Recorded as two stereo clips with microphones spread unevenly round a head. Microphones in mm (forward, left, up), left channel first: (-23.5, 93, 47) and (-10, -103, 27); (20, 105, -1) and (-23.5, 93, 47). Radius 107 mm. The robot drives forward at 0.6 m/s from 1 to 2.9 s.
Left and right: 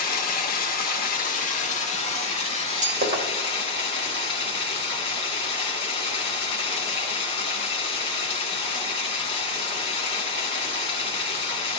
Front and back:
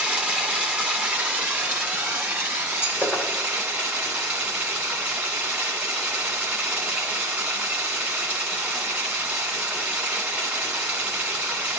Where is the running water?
140° left, 1.5 m; by 11.8 s 155° left, 2.5 m.